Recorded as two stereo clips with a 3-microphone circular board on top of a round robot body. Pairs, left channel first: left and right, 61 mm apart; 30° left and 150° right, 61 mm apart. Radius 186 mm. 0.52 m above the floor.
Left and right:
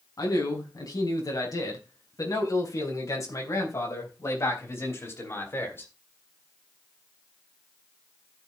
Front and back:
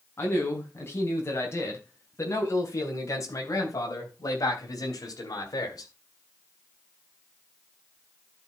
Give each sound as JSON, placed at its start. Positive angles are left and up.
{"t": 0.2, "sound": "a man speaking", "azimuth_deg": 85, "distance_m": 5.0}